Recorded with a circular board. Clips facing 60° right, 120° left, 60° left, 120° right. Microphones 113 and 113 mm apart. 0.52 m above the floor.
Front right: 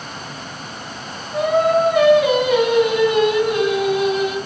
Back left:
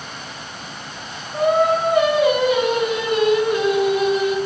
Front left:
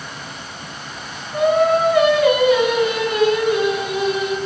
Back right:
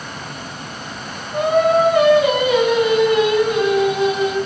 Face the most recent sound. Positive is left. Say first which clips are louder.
# front right 1 dB, back right 1 dB
turn(degrees=-50)